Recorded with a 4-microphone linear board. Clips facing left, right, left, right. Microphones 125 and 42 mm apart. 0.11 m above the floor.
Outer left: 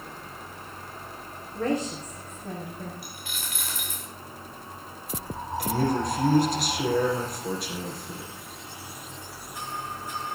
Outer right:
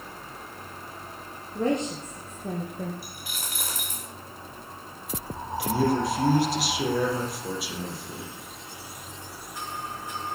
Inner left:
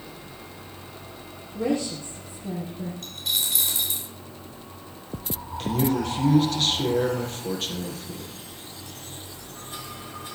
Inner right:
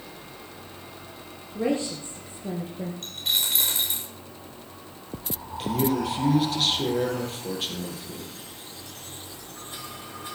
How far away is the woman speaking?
About 2.5 m.